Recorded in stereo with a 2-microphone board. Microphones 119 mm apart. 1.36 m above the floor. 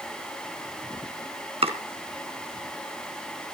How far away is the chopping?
About 2 m.